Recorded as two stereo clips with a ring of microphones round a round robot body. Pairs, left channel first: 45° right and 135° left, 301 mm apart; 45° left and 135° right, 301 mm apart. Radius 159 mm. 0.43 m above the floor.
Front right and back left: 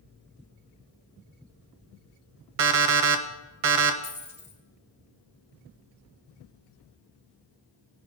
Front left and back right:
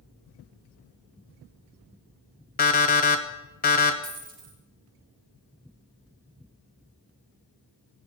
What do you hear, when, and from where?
2.6 s an alarm clock: 110° left, 0.9 m
4.0 s a dropped coin: 155° right, 3.5 m